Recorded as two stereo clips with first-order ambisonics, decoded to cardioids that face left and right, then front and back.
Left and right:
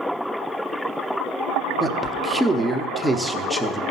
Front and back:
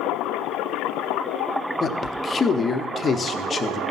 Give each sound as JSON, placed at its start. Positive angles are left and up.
{"t": 1.8, "sound": "a man speaking", "azimuth_deg": -10, "distance_m": 0.7}